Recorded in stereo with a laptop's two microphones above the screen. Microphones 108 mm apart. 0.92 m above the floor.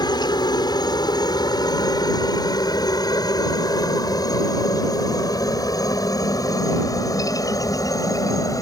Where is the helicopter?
35° left (ahead or behind); by 8.6 s 30° left (ahead or behind).